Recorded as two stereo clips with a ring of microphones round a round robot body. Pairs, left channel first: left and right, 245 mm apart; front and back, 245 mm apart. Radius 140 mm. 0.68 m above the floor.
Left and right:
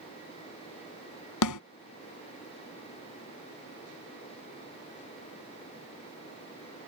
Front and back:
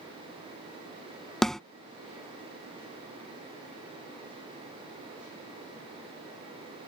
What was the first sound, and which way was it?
A snare drum, 90° left.